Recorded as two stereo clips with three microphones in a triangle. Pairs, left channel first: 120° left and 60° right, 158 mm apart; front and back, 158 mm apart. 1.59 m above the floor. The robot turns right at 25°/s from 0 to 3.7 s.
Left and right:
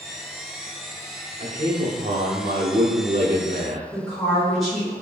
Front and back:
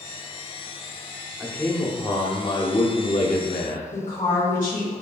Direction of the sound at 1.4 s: 85° right.